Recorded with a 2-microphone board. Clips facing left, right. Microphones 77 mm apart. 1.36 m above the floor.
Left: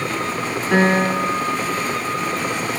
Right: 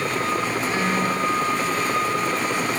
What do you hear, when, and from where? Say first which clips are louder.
0.7 s a piano: left 10 dB; 65° left (ahead or behind), 2 m